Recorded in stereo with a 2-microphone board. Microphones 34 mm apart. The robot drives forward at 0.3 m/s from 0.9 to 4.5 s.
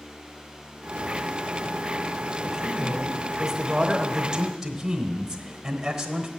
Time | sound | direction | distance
2.4 | a man speaking | 15° right (ahead or behind) | 1.0 m